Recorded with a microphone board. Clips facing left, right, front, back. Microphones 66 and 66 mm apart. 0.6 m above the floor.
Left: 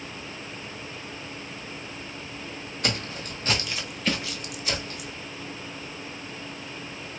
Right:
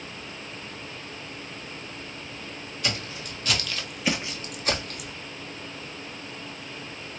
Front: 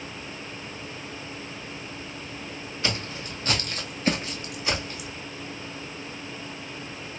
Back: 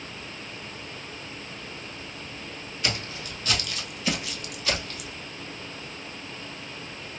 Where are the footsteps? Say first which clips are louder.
Left 2 dB, front 1 dB; 60° left, 1.3 m; by 5.2 s 80° right, 1.2 m.